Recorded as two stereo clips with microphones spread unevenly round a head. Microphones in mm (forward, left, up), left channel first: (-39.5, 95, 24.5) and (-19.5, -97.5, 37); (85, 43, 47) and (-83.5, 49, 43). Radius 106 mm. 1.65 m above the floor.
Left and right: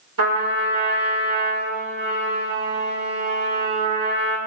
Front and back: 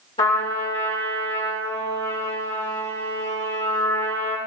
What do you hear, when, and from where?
0.2 s a trumpet: 65° right, 6.5 m